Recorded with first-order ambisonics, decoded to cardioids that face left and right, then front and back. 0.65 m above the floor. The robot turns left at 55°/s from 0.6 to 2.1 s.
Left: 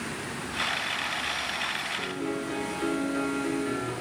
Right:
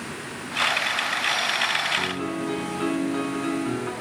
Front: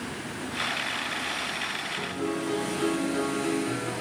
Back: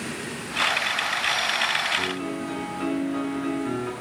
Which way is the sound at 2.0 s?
105° right.